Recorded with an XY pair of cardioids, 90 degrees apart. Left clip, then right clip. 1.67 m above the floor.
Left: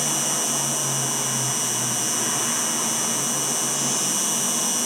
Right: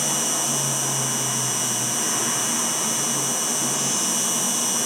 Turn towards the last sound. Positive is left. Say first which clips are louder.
# even
turn(degrees=10)